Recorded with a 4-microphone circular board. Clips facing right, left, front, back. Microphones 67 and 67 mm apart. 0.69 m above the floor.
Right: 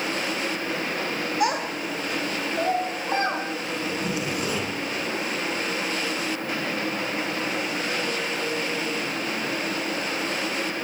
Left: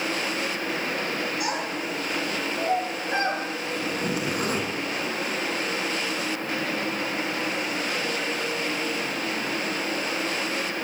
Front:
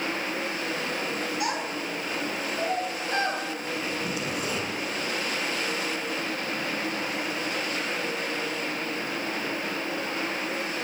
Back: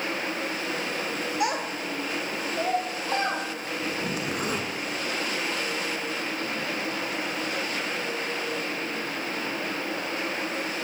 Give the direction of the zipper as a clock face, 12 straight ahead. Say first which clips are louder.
Left 1 dB, back 3 dB; 8 o'clock.